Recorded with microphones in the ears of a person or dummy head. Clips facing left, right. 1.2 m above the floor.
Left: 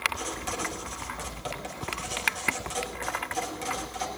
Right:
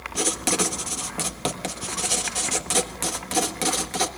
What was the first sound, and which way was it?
Writing, 75° right (ahead or behind).